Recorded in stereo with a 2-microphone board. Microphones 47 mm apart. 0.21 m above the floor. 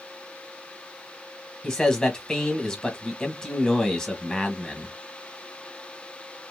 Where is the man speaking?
15° left (ahead or behind), 1.1 m.